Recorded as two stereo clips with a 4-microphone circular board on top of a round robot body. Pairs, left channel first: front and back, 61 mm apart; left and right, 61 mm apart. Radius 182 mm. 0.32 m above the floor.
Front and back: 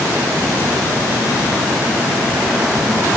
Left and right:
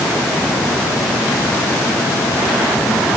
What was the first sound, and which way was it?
Only background noise.